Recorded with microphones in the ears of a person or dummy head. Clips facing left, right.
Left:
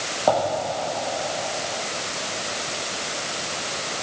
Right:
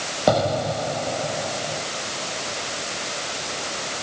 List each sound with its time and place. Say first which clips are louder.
0.3 s an explosion: right 1 dB; 25° right (ahead or behind)